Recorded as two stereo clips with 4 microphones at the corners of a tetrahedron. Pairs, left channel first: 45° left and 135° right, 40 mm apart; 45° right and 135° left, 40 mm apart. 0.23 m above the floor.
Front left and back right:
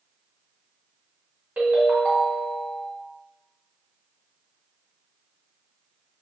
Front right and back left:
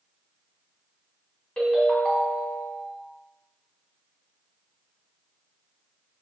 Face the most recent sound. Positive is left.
turn(degrees=-105)